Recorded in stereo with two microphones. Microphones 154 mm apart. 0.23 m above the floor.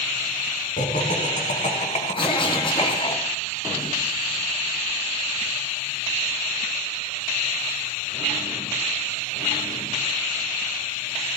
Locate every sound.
0.8 s laughter: 60° left (ahead or behind), 3 m; by 3.1 s 35° left (ahead or behind), 3 m
2.1 s a cough: 35° left (ahead or behind), 3 m